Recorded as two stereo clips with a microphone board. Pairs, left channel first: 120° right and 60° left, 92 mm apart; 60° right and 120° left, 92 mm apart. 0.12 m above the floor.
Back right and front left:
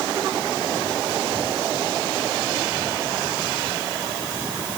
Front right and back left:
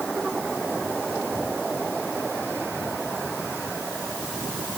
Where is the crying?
No crying in this recording.